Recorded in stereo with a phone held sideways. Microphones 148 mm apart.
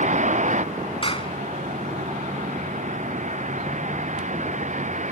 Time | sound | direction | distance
0.0 | a vehicle | 60° right (ahead or behind) | ?
1.0 | a clap | 40° left (ahead or behind) | ?